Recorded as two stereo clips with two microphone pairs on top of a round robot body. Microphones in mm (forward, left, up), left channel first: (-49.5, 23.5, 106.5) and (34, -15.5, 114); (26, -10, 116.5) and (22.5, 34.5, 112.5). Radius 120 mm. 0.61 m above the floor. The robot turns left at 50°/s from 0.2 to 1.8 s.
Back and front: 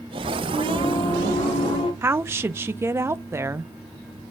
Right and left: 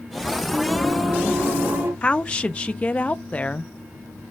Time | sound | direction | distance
0.5 | singing | 160° right | 3 m
2.0 | a woman speaking | 55° right | 0.8 m